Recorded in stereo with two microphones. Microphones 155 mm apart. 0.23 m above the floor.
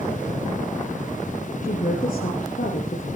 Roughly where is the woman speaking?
Left.